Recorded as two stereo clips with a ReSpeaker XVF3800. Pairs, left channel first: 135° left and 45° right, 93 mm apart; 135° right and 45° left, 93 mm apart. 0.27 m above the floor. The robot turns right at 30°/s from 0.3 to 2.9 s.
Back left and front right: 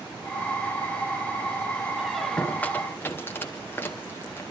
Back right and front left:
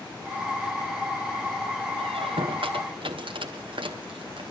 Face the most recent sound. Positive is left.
turn(degrees=70)